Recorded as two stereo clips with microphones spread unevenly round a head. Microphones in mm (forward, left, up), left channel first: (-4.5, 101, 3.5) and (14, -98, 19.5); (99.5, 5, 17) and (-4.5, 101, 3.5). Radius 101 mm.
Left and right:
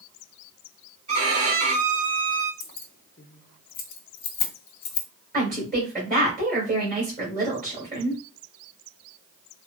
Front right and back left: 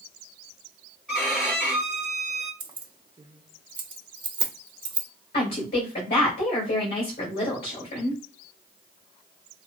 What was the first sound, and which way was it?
A violin, 125° right.